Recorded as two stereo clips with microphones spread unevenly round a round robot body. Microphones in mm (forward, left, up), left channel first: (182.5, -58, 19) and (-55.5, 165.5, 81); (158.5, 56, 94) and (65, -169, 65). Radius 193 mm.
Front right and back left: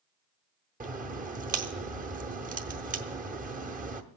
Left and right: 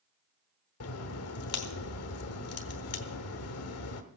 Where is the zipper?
No zipper in this recording.